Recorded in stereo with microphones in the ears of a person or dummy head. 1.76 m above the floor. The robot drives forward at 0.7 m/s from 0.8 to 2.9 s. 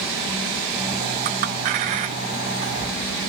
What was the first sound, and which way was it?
A clink, 50° right (ahead or behind).